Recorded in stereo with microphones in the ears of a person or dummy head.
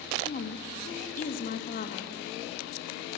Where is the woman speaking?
50° left (ahead or behind), 2.5 m.